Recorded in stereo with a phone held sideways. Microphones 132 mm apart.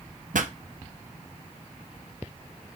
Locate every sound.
0.3 s a pop: 75° right (ahead or behind), 0.6 m